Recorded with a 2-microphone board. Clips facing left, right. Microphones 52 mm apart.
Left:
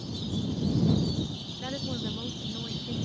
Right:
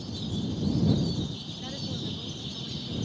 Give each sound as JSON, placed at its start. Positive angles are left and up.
{"t": 1.6, "sound": "a woman speaking", "side_deg": 30}